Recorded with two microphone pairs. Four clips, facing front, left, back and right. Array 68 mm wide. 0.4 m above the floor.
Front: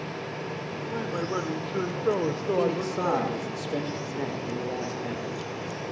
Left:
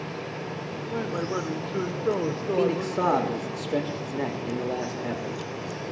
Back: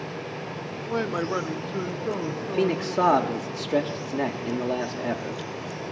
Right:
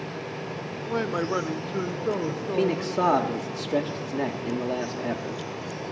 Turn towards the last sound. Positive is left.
turn(degrees=180)